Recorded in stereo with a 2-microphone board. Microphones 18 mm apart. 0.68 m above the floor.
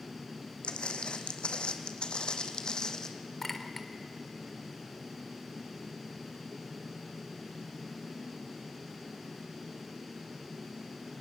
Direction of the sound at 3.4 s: 15° left (ahead or behind).